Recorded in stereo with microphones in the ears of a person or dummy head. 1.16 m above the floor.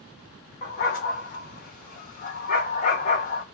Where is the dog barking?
45° left (ahead or behind), 1.6 m.